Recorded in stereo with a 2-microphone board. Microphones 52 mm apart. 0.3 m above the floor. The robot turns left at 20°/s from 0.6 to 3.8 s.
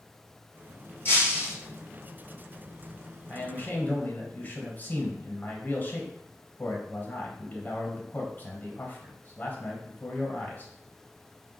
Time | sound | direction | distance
1.1 | breaking glass | 45° left (ahead or behind) | 1.7 m
3.3 | a man speaking | 40° left (ahead or behind) | 1.0 m